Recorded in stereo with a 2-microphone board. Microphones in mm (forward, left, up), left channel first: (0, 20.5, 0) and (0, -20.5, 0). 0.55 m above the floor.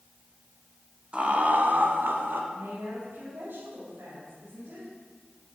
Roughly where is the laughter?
Right.